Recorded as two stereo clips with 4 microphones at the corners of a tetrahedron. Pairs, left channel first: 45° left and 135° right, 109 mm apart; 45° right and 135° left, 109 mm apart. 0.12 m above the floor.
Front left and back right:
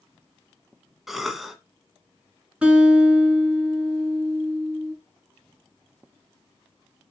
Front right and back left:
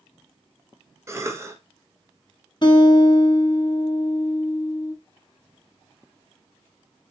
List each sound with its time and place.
1.1 s a cough: 140° left, 1.2 m
2.6 s a guitar: 60° right, 2.5 m